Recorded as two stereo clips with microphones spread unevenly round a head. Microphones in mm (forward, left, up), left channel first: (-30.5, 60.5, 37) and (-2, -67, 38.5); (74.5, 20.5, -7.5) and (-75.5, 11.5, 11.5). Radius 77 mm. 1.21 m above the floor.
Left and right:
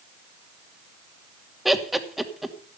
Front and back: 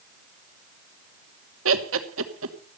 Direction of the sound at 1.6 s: 165° right.